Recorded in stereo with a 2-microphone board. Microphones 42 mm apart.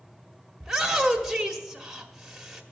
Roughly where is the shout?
Centre.